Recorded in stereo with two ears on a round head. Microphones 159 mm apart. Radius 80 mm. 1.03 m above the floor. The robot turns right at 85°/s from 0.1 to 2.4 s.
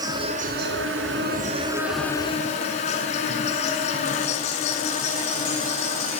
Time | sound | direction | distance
0.0 | an insect | 160° right | 5.5 m